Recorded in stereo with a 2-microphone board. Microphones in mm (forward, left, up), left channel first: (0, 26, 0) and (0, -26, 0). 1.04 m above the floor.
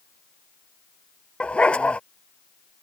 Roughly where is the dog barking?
Centre.